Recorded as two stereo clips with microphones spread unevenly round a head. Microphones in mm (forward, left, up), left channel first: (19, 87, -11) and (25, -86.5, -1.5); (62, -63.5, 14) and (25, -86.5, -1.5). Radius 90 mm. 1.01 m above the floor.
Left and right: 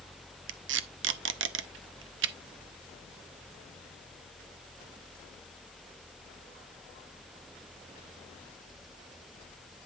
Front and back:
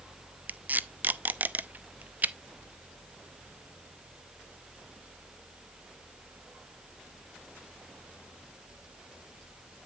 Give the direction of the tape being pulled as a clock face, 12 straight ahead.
3 o'clock.